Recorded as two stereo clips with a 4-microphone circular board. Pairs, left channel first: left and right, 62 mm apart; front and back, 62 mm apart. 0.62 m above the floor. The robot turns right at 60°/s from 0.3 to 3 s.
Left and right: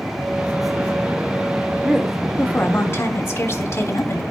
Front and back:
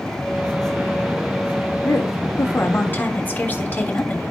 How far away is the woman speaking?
About 1.7 m.